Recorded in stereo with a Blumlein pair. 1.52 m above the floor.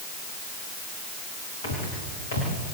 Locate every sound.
1.6 s footsteps: 60° left, 8.5 m